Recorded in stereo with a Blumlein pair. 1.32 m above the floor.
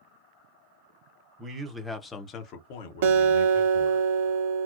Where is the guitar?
55° right, 0.7 m.